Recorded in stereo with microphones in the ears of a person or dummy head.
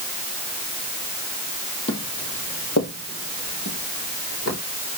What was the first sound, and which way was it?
Footsteps, 40° left (ahead or behind).